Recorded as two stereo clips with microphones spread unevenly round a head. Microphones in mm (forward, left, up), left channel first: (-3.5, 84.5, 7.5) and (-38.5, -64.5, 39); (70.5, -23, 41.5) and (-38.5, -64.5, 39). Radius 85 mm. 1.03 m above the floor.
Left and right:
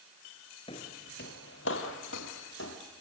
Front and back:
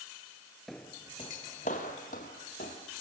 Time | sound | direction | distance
0.7 | footsteps | 105° left | 1.0 m